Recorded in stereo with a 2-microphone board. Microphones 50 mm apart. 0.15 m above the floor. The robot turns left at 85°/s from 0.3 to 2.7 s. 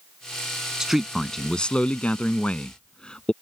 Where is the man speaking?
10° right (ahead or behind); by 3.3 s 20° left (ahead or behind).